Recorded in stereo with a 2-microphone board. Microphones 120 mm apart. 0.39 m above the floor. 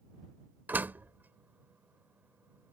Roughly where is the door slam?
Centre.